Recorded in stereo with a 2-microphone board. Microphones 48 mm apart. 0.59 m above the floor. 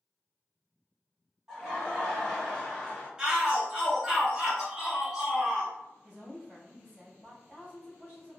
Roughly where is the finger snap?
I don't hear a finger snap.